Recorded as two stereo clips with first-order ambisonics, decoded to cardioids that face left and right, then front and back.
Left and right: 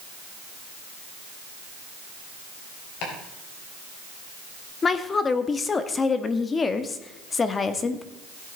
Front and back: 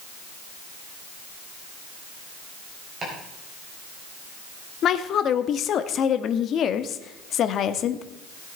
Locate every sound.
3.0 s chopping: 115° left, 4 m
4.8 s a woman speaking: 30° left, 0.7 m